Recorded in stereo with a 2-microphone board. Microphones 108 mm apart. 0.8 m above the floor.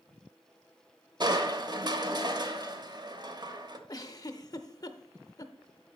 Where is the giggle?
35° left (ahead or behind), 0.5 m.